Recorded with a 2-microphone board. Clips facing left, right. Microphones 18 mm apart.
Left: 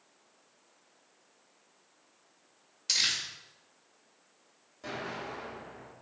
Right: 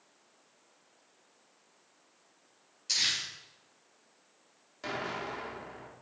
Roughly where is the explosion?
Right.